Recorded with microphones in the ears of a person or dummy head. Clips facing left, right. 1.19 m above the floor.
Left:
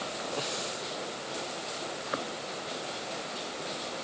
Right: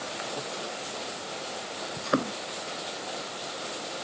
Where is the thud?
60° right (ahead or behind).